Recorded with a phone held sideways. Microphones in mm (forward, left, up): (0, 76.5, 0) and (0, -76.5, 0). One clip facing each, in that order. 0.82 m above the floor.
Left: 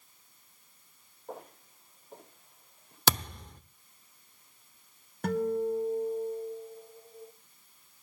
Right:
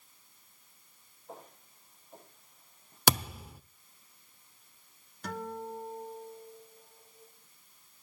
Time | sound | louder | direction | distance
1.3 | footsteps | left 5 dB | 80° left | 9.5 m
3.1 | a thud | right 1 dB | 5° right (ahead or behind) | 0.8 m
5.2 | a guitar | left 11 dB | 65° left (ahead or behind) | 1.9 m